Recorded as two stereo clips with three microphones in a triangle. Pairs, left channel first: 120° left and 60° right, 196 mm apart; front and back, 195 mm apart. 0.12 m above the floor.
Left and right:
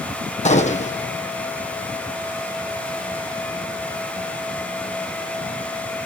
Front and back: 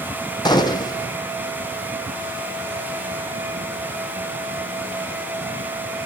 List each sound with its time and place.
0.5 s a gunshot: 65° left, 1.1 m